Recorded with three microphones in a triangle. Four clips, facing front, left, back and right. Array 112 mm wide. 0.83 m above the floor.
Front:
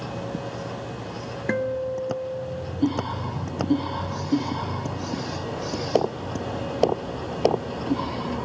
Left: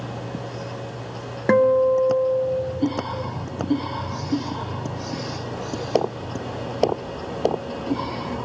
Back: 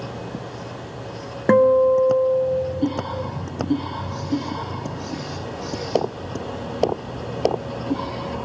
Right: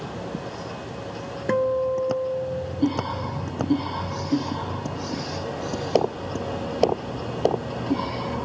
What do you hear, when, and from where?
1.5 s a guitar: 155° left